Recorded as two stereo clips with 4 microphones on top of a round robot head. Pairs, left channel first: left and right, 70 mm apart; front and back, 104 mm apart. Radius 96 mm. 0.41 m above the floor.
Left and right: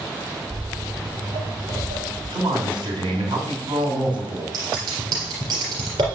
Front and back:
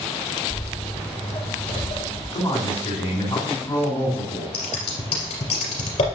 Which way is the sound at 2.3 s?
70° right.